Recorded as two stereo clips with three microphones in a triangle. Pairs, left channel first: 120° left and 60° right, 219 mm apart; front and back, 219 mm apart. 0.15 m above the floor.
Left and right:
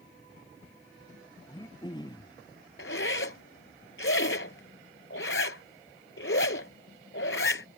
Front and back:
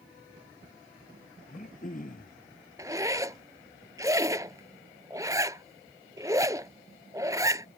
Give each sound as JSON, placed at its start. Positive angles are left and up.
{"t": 1.5, "sound": "throat clearing", "azimuth_deg": 50}
{"t": 2.8, "sound": "a zipper", "azimuth_deg": 105}